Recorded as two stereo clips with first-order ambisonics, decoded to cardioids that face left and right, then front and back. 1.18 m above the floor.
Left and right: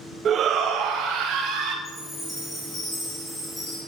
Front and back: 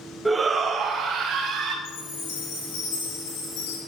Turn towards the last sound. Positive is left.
turn(degrees=10)